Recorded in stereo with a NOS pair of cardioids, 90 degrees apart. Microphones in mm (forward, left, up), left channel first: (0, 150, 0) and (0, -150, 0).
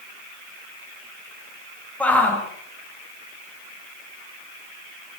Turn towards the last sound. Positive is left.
turn(degrees=5)